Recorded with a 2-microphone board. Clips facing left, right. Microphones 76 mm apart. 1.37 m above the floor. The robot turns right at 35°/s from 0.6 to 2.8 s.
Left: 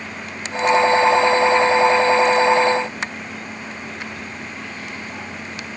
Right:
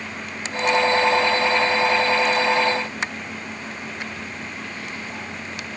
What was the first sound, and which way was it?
Only background noise.